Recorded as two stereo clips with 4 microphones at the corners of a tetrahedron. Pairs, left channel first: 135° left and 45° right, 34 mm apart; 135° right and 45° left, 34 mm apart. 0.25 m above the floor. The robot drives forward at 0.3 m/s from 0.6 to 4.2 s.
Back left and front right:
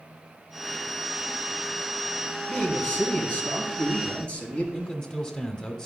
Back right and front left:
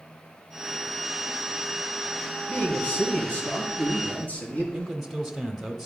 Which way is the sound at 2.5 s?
175° right.